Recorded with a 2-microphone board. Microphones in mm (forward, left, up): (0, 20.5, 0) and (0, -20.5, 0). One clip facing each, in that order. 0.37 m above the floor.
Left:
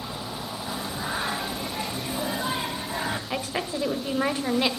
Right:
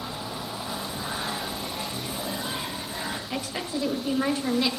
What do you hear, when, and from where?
0.7 s singing: 30° left (ahead or behind), 1.1 m
3.3 s a woman speaking: 25° left (ahead or behind), 1.6 m